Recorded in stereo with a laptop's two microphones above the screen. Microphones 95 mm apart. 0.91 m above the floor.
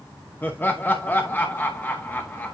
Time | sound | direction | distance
0.4 | laughter | 20° left (ahead or behind) | 0.9 m